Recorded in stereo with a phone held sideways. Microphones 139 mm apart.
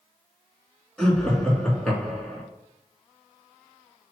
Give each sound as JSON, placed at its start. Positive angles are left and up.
{"t": 1.0, "sound": "laughter", "side_deg": 10, "distance_m": 2.5}